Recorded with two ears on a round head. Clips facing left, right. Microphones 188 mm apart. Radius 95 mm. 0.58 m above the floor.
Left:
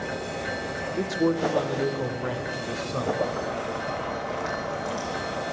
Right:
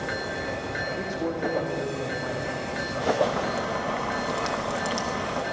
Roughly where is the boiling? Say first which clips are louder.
Right 2 dB; right.